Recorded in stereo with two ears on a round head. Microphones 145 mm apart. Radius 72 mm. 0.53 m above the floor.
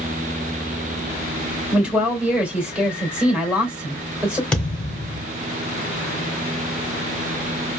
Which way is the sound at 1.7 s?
5° right (ahead or behind).